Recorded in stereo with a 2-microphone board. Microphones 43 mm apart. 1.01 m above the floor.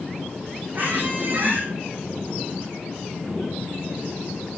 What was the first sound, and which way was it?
A squeak, 45° right (ahead or behind).